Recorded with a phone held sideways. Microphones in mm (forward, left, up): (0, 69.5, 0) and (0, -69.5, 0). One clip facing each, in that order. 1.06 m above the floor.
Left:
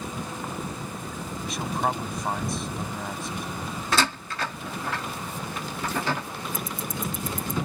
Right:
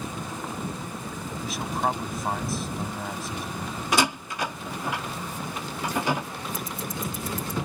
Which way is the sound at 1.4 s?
Centre (ahead or behind).